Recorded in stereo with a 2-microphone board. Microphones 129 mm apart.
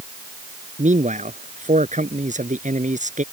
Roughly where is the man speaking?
Right.